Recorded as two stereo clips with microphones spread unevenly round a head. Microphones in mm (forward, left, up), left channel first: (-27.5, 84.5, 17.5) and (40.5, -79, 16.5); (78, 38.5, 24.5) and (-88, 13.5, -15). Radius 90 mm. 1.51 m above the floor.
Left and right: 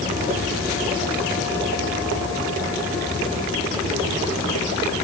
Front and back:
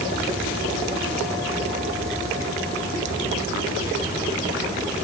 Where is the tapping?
I don't hear tapping.